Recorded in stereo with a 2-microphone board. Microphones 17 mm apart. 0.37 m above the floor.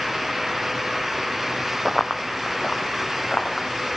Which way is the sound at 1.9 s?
Centre (ahead or behind).